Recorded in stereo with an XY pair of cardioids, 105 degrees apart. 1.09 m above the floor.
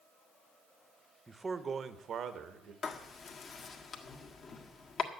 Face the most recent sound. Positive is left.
turn(degrees=50)